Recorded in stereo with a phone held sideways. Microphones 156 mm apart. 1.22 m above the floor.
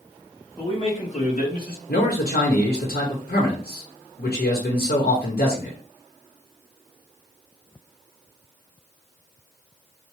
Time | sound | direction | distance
0.6 | a man speaking | 30° left (ahead or behind) | 1.7 m
1.9 | a man speaking | 85° left | 1.2 m